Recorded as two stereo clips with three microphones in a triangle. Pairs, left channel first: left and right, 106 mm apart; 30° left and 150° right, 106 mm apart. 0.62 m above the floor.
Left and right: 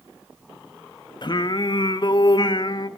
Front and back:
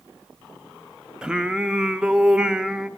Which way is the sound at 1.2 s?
130° left.